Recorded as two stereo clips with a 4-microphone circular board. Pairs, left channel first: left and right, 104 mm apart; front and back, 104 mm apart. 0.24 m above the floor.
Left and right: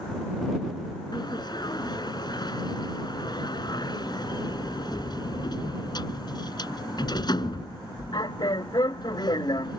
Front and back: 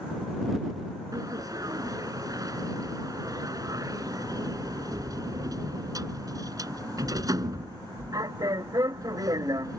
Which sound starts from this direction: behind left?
A sliding door, at 1.1 s.